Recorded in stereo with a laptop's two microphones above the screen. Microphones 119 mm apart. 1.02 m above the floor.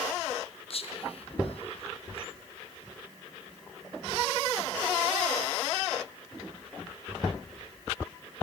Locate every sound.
0.7 s whispering: 55° left (ahead or behind), 0.5 m